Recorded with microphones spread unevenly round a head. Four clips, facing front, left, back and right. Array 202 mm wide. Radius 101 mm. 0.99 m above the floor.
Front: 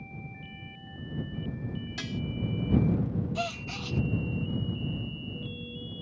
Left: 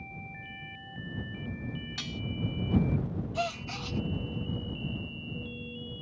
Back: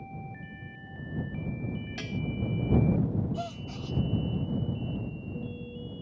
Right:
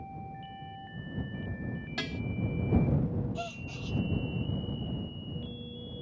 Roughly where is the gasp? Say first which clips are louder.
Left 6 dB, front 2 dB; ahead left.